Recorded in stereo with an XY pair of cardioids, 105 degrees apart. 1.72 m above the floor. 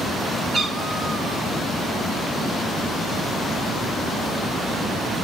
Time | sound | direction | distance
0.5 | a cat meowing | 45° right | 4 m